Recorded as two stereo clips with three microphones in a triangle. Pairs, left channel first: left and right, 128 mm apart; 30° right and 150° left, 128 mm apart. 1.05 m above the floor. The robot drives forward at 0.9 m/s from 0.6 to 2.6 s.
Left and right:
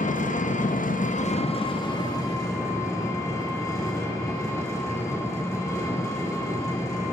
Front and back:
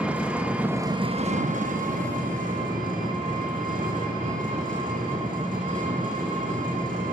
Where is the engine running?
70° left, 0.7 m; by 7.1 s 155° left, 1.7 m.